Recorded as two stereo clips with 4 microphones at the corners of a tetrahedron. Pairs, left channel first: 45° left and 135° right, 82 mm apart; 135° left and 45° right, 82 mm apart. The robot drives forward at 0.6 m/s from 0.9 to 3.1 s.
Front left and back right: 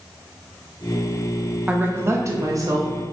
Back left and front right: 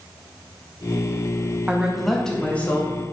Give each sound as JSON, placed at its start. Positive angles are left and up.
{"t": 1.7, "sound": "a woman speaking", "azimuth_deg": -85, "distance_m": 0.6}